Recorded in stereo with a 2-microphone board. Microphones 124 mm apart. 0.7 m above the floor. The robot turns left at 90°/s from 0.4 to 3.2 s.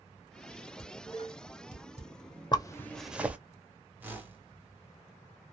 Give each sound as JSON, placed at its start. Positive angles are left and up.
{"t": 0.8, "sound": "dishes clattering", "side_deg": 15, "distance_m": 1.3}
{"t": 2.5, "sound": "a zipper", "side_deg": 35, "distance_m": 0.5}
{"t": 4.0, "sound": "a whoosh", "side_deg": -15, "distance_m": 0.8}